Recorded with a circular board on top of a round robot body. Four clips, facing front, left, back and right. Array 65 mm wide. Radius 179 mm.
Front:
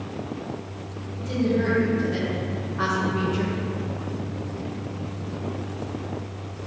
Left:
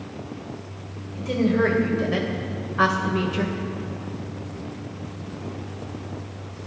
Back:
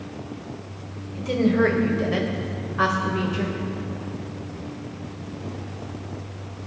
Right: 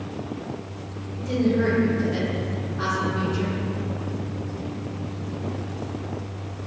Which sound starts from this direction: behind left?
A woman speaking, at 1.1 s.